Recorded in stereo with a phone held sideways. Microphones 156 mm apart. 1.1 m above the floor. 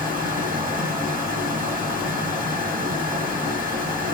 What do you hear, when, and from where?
0.0 s a fan: 65° right (ahead or behind), 2 m